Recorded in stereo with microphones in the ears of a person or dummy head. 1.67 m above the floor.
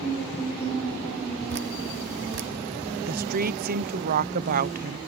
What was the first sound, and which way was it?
Dripping, 60° right (ahead or behind).